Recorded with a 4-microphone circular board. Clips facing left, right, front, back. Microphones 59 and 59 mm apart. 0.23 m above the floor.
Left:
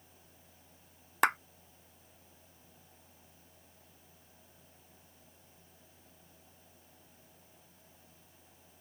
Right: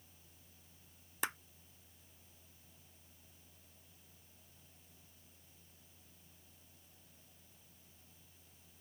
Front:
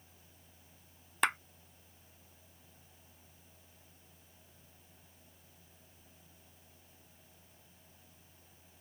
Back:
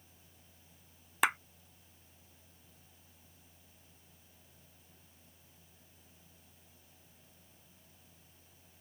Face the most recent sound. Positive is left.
turn(degrees=95)